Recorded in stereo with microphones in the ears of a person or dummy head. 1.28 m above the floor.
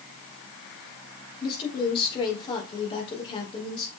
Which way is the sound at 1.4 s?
25° left (ahead or behind).